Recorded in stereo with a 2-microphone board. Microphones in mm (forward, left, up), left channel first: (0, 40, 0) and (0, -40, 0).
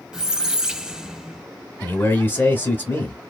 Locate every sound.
0.1 s a squeak: 10° right (ahead or behind), 0.5 m
1.8 s a man speaking: 25° left (ahead or behind), 1.0 m